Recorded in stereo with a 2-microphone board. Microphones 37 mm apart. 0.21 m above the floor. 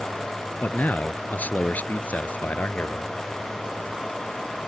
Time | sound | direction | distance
0.6 | a man speaking | 50° left (ahead or behind) | ?